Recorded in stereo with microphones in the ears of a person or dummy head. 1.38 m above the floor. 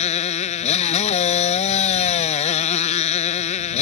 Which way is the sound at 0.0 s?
40° left (ahead or behind).